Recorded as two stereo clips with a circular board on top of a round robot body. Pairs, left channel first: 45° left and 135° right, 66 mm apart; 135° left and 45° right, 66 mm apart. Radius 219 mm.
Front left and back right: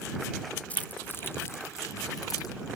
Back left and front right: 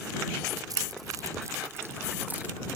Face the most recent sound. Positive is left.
turn(degrees=25)